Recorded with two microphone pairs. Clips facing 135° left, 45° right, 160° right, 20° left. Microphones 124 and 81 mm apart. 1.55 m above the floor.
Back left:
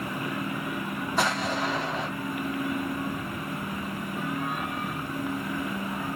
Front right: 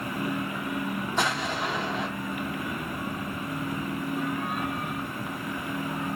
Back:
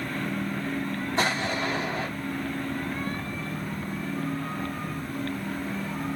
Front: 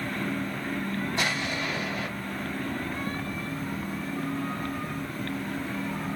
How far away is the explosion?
About 1.3 m.